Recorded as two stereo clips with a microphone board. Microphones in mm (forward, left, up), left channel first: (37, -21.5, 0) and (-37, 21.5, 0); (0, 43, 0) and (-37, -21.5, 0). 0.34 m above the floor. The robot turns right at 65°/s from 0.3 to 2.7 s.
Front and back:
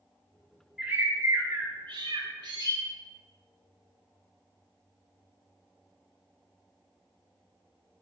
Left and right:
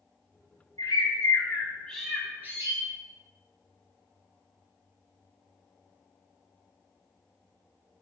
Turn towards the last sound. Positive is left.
turn(degrees=-170)